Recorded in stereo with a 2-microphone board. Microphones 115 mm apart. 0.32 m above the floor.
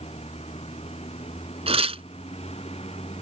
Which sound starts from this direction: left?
A vehicle, at 0.0 s.